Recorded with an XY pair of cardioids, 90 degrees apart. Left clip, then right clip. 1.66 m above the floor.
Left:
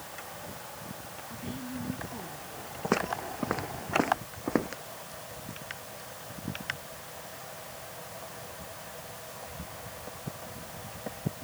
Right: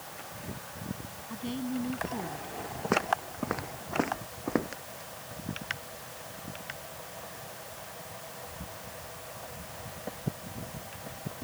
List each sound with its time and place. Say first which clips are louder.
1.3 s a woman speaking: right 6 dB; 50° right
2.8 s footsteps: right 1 dB; 5° left